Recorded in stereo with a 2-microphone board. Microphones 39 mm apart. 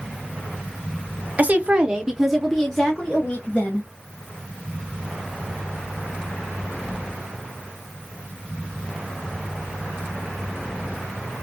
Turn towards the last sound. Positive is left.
turn(degrees=35)  # may be behind; listen again after turning